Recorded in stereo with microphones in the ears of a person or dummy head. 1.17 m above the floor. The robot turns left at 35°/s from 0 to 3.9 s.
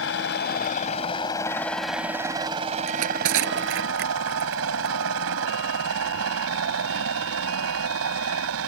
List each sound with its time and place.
0.0 s a helicopter: 65° left (ahead or behind); by 8.7 s 75° right (ahead or behind)
2.9 s crushing: 90° right; by 5.0 s 55° right (ahead or behind)